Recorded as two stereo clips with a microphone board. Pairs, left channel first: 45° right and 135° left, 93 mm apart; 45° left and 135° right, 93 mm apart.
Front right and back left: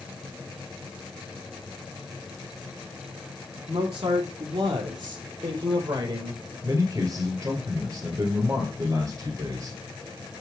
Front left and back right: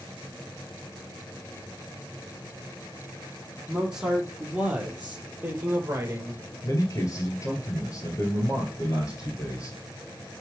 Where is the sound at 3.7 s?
140° left, 4 m; by 6.4 s 170° left, 2.5 m.